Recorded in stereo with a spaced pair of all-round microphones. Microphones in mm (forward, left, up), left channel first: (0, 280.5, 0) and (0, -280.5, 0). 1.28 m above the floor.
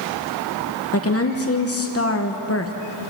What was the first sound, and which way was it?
A woman speaking, 25° left (ahead or behind).